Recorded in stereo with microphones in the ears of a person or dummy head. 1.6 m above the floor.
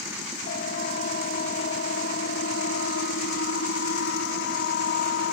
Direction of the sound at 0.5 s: 50° left (ahead or behind).